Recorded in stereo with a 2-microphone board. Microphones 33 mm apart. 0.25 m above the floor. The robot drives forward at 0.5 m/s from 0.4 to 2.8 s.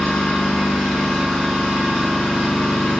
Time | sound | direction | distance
0.0 | an engine running | 35° left (ahead or behind) | 0.7 m